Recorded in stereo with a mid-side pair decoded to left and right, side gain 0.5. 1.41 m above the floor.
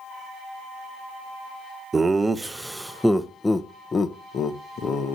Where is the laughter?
25° right, 1.2 m; by 5.2 s 60° left, 1.4 m.